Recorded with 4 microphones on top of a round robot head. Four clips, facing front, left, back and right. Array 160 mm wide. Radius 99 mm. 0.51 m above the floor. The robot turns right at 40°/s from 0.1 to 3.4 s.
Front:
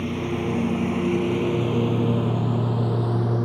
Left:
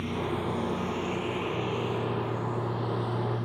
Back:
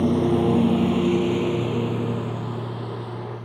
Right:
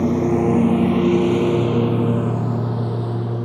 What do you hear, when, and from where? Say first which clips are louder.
0.0 s a lawn mower: right 14 dB, back 7 dB; 120° right; by 3.5 s 35° right